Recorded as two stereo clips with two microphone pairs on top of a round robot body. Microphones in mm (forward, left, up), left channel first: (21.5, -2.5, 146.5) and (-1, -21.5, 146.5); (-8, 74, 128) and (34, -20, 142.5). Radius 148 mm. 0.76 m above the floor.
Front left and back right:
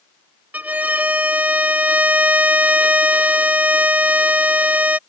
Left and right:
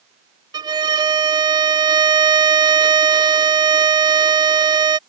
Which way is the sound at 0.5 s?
115° right.